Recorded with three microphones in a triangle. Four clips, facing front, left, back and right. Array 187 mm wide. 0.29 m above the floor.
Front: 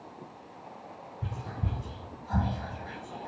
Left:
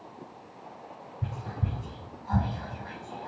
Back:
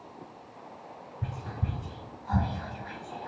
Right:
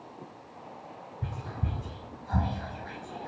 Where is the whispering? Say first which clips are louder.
Left 2 dB, back 1 dB; 145° left, 1.7 m.